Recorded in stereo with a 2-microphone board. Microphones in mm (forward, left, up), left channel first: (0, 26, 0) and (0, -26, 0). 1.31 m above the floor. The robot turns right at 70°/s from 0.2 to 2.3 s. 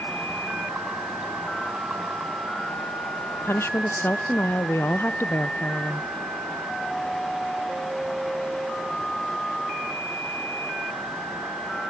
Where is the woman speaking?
55° left (ahead or behind), 0.5 m.